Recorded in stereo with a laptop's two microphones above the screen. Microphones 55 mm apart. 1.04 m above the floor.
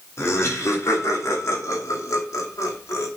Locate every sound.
0.2 s laughter: 55° left (ahead or behind), 3 m; by 3.1 s 65° left (ahead or behind), 2 m